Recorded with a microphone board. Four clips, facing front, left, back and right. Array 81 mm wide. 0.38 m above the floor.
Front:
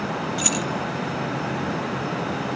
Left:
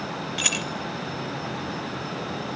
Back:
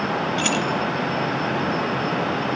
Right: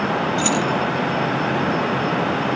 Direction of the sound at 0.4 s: 125° left.